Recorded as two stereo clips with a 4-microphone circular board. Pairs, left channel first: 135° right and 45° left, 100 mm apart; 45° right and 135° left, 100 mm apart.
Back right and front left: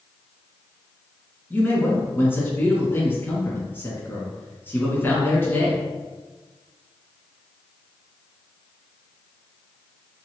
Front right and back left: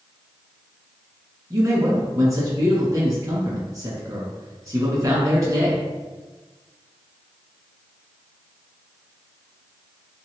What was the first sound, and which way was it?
A man speaking, 165° left.